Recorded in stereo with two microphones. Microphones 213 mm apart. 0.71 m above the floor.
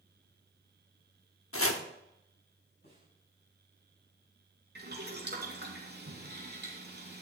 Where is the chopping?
80° left, 0.9 m.